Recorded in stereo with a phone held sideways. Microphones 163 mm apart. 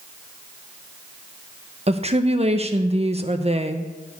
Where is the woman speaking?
40° right (ahead or behind), 0.9 m.